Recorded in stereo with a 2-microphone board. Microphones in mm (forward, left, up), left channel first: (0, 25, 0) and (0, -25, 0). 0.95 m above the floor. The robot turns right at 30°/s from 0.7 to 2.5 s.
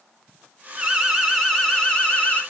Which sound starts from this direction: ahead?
An alarm, at 0.8 s.